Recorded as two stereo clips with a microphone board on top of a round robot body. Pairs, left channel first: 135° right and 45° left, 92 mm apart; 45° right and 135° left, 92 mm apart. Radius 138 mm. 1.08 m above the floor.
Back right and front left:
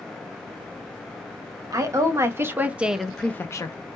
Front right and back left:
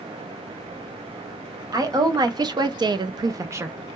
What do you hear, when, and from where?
1.7 s a woman speaking: 95° left, 1.0 m; by 3.8 s 165° right, 0.5 m